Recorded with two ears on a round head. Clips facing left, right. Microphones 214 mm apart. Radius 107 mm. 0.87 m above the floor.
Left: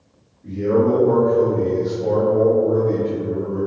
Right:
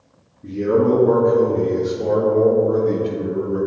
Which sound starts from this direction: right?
A man speaking, at 0.4 s.